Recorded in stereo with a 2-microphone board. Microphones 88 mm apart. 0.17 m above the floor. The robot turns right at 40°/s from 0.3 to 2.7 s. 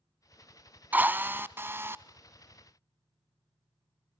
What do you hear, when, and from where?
0.9 s a drill: 20° right (ahead or behind), 0.6 m; by 2.0 s 25° right (ahead or behind), 0.6 m